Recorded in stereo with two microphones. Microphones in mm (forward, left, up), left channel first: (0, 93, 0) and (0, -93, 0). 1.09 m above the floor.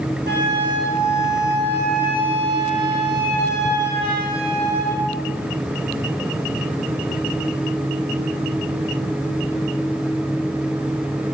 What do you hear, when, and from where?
0.3 s a flute: 65° right (ahead or behind), 1.3 m